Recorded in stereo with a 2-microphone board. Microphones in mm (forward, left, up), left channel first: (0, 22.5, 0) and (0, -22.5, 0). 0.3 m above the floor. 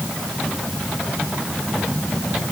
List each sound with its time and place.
Only background noise.